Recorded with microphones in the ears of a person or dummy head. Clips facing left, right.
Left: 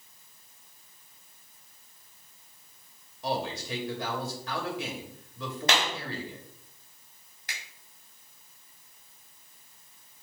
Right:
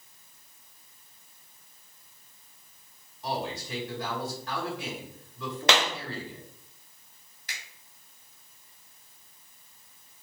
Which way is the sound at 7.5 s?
45° left (ahead or behind).